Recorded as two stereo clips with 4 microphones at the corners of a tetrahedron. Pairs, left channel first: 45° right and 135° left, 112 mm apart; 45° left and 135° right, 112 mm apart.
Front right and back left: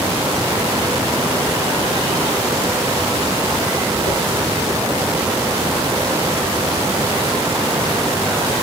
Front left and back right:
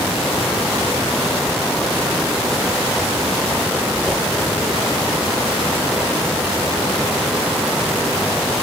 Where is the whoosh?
55° right, 3 m.